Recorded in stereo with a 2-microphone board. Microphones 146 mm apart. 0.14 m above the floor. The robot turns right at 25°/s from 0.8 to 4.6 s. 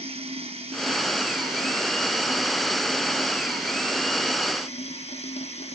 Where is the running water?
45° right, 2.5 m; by 5.8 s 50° left, 2.5 m.